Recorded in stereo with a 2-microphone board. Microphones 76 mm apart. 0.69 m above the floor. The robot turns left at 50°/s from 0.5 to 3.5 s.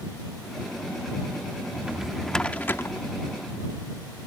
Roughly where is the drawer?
Right.